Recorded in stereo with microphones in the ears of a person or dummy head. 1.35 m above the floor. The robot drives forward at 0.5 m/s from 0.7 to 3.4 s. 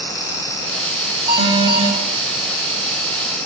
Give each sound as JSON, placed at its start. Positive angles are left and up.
{"t": 1.3, "sound": "an alarm", "side_deg": -25, "distance_m": 8.5}